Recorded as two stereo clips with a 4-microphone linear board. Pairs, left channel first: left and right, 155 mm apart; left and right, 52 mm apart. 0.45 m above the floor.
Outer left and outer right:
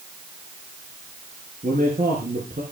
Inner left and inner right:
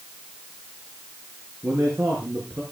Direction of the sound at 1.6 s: 60° right (ahead or behind).